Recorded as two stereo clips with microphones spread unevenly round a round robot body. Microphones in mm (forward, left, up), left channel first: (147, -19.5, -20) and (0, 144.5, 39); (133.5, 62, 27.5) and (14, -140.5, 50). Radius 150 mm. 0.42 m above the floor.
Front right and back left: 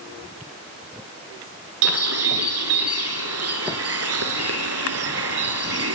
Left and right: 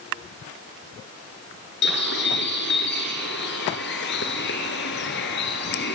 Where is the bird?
120° left, 1.3 m.